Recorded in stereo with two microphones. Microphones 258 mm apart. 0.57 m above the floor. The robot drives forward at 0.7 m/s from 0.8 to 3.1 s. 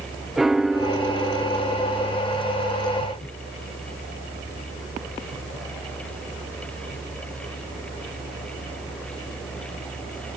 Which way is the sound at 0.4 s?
Centre (ahead or behind).